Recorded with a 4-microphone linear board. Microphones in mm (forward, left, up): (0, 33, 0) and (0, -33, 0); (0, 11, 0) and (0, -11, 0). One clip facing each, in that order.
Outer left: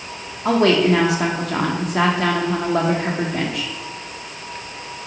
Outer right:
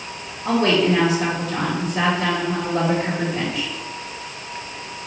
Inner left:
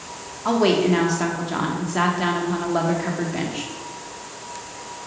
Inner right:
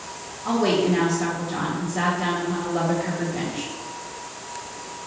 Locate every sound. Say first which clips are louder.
0.5 s a woman speaking: outer left 2 dB, inner left 3 dB; 70° left (ahead or behind), 1.2 m